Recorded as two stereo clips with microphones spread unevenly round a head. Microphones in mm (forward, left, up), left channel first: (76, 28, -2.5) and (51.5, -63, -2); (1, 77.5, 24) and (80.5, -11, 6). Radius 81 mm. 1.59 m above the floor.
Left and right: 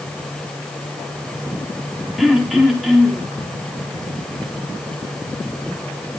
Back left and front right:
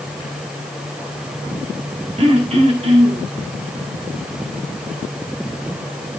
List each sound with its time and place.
2.2 s throat clearing: 15° right, 4.5 m